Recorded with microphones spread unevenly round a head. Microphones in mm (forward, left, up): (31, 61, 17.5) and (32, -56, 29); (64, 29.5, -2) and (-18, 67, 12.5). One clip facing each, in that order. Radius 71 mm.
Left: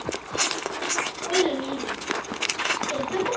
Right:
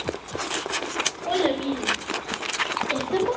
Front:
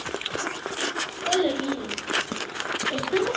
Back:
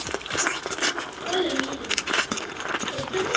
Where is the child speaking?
70° right, 2.5 m; by 3.4 s 15° right, 1.2 m.